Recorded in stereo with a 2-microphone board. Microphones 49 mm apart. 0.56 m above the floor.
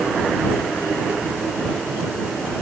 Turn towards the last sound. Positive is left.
No sound to turn to.